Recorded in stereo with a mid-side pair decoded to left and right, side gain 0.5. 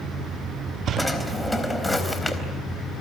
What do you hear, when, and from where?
1.0 s a drawer: 10° left, 4 m